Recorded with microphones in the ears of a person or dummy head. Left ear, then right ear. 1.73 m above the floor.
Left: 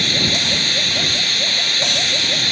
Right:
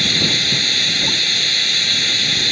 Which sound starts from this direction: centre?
Running water, at 0.0 s.